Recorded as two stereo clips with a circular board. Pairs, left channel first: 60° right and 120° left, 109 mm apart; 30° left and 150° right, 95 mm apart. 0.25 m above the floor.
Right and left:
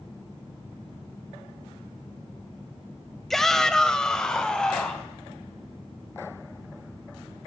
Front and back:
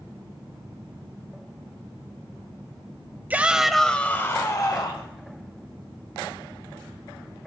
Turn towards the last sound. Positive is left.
turn(degrees=20)